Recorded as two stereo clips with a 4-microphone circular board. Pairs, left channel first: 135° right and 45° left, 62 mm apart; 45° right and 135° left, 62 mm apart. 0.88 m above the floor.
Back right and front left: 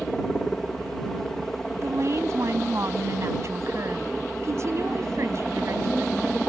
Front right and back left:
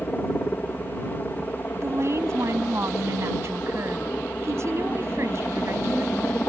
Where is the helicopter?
55° right.